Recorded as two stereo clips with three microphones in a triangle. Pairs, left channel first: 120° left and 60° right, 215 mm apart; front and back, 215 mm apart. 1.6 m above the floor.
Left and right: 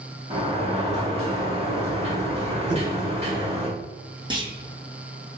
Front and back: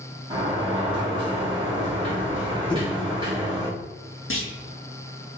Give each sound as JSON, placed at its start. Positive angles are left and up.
{"t": 0.3, "sound": "a sliding door", "azimuth_deg": -120, "distance_m": 1.8}
{"t": 2.7, "sound": "knocking", "azimuth_deg": -65, "distance_m": 1.2}
{"t": 4.3, "sound": "a clunk", "azimuth_deg": 5, "distance_m": 0.9}